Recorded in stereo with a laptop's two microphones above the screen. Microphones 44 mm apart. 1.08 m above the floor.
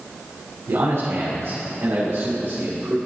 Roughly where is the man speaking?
Right.